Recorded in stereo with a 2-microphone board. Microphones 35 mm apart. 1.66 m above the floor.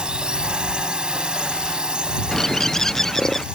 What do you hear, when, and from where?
0.0 s a drone: 25° right (ahead or behind)
2.3 s a bird: 15° left (ahead or behind)